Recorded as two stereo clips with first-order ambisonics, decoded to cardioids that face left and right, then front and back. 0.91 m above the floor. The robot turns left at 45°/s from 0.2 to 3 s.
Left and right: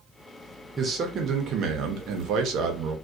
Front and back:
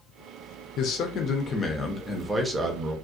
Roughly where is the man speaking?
Ahead right.